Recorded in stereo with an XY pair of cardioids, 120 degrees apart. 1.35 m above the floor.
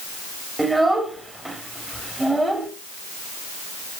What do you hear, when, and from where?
0.6 s a child speaking: 10° right, 1.8 m